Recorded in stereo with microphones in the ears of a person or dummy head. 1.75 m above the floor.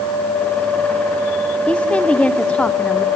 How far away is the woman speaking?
About 0.9 m.